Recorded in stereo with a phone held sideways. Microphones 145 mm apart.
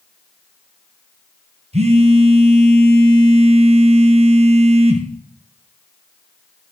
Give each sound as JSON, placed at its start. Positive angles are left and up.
{"t": 1.7, "sound": "a phone buzzing", "side_deg": -45, "distance_m": 1.1}